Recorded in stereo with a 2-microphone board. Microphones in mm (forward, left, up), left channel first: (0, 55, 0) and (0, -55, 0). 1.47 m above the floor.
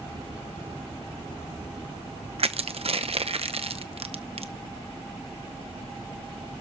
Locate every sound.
2.4 s crushing: 65° right (ahead or behind), 0.8 m